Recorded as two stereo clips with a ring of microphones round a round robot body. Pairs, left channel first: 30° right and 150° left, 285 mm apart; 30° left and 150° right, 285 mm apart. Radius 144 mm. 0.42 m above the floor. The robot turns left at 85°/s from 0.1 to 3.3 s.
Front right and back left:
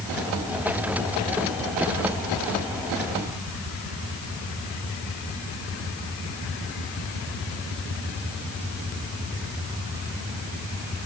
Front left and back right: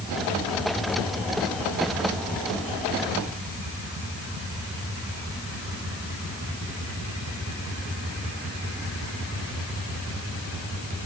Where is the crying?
No crying in this recording.